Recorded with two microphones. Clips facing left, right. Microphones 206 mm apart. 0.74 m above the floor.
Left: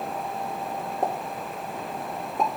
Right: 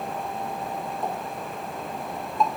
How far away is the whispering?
I don't hear whispering.